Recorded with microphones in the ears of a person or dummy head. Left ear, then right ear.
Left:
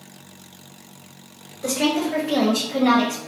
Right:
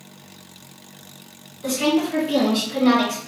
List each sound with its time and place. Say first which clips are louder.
1.6 s a woman speaking: right 1 dB; 70° left (ahead or behind), 0.9 m; by 3.2 s 5° right (ahead or behind), 0.8 m